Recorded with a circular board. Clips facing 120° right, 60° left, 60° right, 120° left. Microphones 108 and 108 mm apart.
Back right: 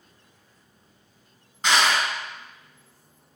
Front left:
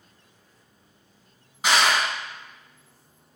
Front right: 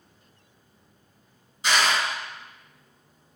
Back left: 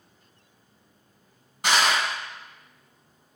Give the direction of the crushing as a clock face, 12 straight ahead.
7 o'clock.